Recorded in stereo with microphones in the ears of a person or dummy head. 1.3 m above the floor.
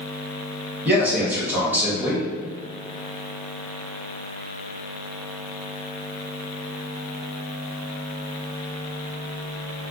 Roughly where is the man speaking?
Centre.